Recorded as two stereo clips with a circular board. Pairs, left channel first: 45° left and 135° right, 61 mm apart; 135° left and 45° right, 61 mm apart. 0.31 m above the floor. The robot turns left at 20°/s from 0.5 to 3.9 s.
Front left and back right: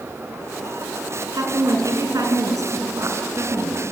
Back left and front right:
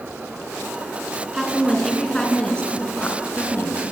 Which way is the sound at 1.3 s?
130° right.